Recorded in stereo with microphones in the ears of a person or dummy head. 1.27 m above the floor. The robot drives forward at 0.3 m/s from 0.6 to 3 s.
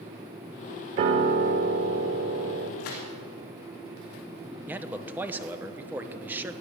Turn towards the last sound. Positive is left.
turn(degrees=-10)  # may be behind; listen again after turning